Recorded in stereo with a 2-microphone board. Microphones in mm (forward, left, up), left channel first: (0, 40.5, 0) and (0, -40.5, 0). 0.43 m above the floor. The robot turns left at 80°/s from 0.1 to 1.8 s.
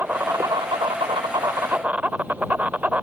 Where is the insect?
25° right; by 3.0 s 160° right.